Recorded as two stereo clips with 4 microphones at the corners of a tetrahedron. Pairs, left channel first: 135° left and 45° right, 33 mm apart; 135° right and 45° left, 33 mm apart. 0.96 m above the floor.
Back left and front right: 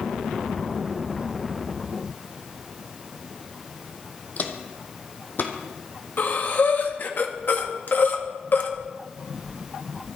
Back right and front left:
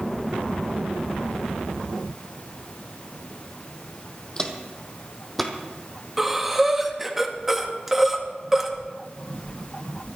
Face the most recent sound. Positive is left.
turn(degrees=125)